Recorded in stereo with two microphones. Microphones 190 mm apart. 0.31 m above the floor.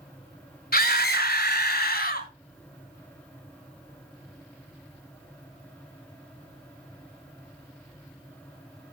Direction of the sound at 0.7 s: 50° left (ahead or behind).